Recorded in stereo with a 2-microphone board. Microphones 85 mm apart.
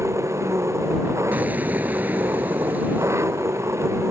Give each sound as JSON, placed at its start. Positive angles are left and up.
{"t": 0.0, "sound": "an engine running", "side_deg": -35}
{"t": 1.3, "sound": "an explosion", "side_deg": -20}